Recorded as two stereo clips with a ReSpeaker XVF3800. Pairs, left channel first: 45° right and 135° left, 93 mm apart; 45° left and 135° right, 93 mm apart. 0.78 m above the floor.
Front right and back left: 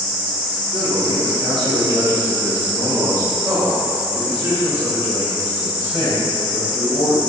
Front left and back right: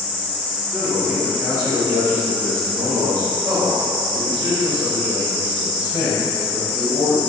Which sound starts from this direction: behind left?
A man speaking, at 0.7 s.